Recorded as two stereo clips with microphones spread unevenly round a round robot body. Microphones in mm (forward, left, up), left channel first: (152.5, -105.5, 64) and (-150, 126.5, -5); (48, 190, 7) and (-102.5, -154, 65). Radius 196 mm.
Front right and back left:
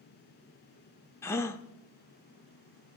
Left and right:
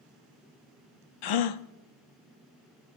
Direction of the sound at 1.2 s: 40° left.